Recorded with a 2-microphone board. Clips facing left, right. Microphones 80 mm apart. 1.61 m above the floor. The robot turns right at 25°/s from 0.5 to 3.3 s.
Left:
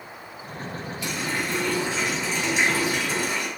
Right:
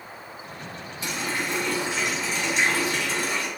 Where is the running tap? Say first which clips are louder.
Even; 35° right, 1.9 m; by 3.5 s 25° left, 1.9 m.